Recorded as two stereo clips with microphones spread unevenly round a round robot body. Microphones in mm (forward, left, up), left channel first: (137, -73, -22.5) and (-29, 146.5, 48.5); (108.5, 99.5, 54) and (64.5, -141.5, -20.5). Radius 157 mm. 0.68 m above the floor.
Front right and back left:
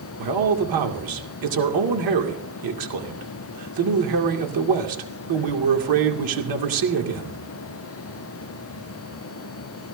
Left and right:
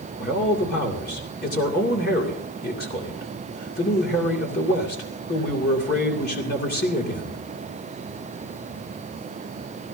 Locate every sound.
0.2 s a man speaking: 145° left, 2.5 m